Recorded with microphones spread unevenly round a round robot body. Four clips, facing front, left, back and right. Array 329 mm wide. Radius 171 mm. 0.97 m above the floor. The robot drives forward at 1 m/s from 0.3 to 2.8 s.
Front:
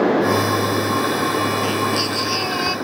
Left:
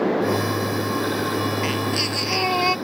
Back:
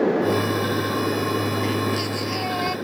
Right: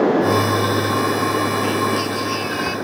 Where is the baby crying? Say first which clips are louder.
Right 5 dB, front 3 dB; 80° left; by 2.8 s 85° left.